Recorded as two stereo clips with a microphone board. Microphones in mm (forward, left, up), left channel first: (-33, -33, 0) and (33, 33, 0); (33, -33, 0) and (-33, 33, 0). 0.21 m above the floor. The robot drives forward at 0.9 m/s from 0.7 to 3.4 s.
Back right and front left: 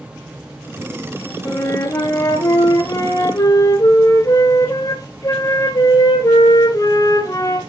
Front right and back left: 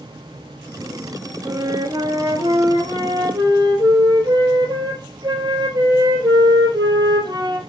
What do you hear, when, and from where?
1.4 s a flute: 175° left, 1.2 m; by 7.6 s straight behind, 3 m